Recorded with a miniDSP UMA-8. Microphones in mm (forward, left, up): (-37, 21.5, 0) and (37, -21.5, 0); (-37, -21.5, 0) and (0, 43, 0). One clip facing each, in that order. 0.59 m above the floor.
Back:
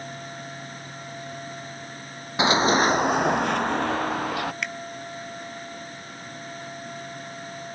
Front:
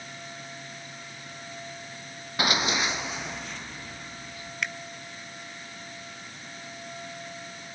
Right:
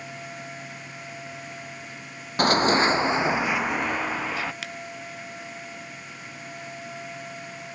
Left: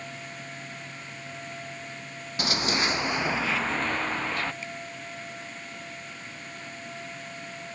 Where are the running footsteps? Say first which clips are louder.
Back 8 dB, right 9 dB; 145° right; by 4.5 s 155° left.